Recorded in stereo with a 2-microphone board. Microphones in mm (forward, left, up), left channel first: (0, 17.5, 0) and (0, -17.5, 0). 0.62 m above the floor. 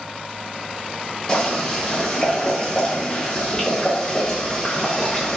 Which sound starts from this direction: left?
Boiling, at 1.3 s.